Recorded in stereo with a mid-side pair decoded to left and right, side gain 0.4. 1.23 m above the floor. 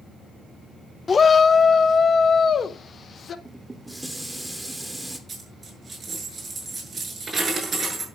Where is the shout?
40° left, 0.6 m; by 3.4 s 50° left, 1.8 m.